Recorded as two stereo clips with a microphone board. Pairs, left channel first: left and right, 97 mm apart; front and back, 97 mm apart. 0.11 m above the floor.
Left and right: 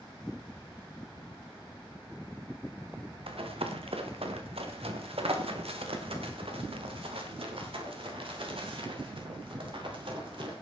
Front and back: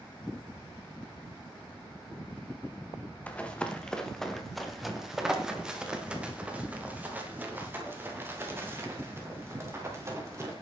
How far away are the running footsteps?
About 3 m.